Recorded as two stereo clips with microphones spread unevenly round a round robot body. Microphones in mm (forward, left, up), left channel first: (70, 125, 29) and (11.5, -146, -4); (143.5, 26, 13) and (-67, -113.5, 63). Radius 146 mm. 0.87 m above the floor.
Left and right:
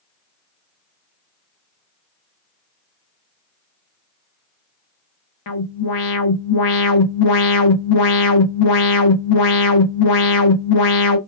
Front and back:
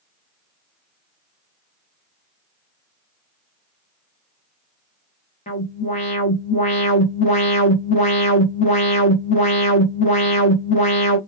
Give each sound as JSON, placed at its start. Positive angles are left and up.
{"t": 5.5, "sound": "an alarm", "azimuth_deg": 100, "distance_m": 0.7}